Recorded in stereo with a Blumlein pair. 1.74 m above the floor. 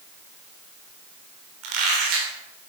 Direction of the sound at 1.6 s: 40° right.